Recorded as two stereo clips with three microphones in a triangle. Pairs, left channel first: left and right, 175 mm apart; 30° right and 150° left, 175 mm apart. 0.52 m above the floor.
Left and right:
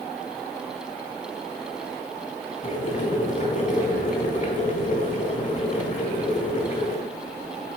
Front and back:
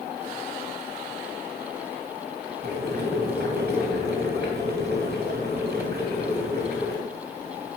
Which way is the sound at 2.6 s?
130° left.